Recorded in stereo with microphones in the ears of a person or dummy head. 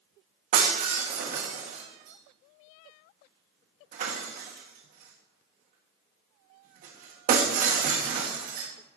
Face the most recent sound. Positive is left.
turn(degrees=-45)  # may be behind; listen again after turning